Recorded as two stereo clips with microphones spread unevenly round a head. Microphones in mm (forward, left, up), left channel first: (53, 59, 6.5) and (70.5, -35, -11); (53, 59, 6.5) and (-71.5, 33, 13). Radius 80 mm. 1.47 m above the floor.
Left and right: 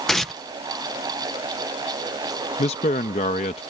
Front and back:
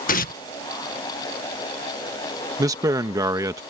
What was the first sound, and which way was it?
Tearing paper, 10° left.